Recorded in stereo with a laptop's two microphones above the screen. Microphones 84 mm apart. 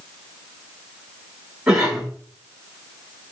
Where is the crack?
No crack in this recording.